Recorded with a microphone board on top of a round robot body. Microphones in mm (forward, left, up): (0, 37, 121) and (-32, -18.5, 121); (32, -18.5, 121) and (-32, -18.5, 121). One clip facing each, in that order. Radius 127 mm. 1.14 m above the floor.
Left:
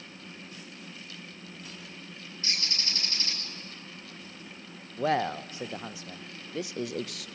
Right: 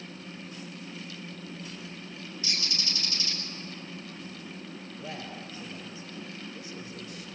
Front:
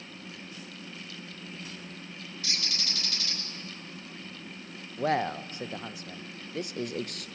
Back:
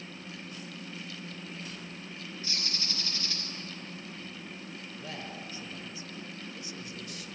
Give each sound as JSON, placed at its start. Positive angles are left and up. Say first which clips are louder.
{"t": 2.4, "sound": "a bird", "louder": "even, front 3 dB", "azimuth_deg": 5, "distance_m": 6.5}
{"t": 5.0, "sound": "a man speaking", "louder": "left 15 dB, front 16 dB", "azimuth_deg": 40, "distance_m": 0.7}